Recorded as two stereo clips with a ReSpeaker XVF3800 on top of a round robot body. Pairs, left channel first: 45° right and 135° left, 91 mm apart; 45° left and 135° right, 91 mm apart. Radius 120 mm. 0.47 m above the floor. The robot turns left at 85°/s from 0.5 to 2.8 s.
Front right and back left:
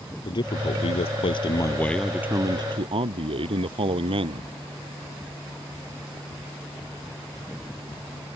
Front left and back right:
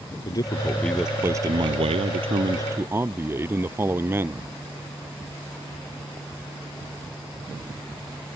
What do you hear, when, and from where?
0.2 s a man speaking: 5° right; by 4.5 s 160° left